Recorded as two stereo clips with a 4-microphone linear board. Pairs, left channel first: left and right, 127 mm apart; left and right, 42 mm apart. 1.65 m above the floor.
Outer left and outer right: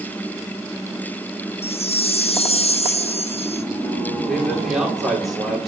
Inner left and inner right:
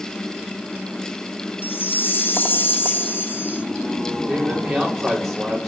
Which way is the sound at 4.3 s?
Centre (ahead or behind).